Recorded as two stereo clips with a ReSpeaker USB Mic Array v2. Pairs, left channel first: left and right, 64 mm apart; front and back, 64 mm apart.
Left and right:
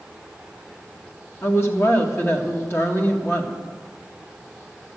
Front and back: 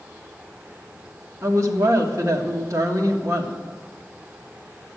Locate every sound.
1.4 s a woman speaking: 140° left, 1.9 m